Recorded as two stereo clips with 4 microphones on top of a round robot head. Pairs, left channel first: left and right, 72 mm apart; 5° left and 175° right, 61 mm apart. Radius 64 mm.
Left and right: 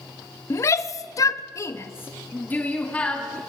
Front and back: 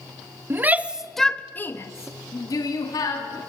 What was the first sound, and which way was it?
A shout, 135° left.